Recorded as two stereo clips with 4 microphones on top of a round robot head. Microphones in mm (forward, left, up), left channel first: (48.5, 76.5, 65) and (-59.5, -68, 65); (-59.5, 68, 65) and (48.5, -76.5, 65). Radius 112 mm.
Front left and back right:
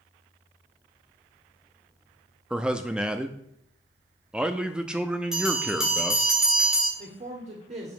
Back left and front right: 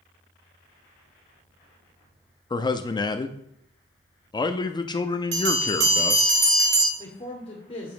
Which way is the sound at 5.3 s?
40° right.